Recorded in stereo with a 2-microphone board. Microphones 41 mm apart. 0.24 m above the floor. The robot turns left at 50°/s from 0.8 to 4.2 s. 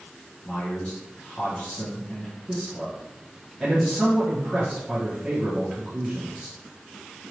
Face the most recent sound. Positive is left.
turn(degrees=-15)  # may be behind; listen again after turning